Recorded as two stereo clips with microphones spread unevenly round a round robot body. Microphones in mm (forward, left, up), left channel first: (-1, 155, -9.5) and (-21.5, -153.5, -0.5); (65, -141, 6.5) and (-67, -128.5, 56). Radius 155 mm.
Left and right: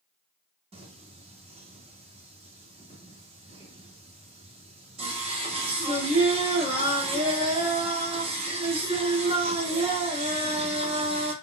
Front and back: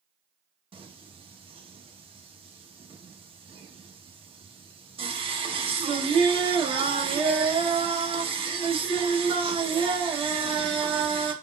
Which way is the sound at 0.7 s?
140° right.